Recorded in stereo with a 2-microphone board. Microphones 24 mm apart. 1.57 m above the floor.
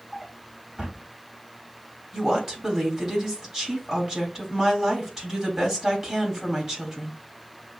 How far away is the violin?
No violin in this recording.